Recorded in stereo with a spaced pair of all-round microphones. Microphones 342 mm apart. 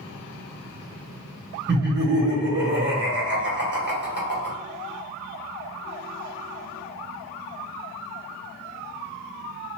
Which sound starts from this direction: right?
Laughter, at 1.7 s.